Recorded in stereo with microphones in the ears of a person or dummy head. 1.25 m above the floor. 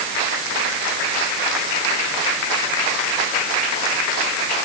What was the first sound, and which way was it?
Only background noise.